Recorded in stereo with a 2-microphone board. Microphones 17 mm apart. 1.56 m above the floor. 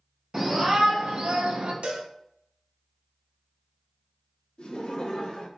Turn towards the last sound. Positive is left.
turn(degrees=60)  # may be behind; listen again after turning